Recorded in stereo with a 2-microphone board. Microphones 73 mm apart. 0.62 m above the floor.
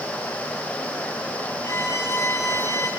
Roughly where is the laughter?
I don't hear laughter.